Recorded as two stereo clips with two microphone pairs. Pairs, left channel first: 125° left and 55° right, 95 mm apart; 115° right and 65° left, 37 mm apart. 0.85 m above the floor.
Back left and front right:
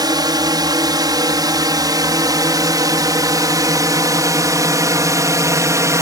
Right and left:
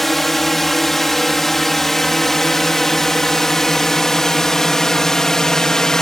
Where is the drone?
35° right; by 6.0 s 55° right.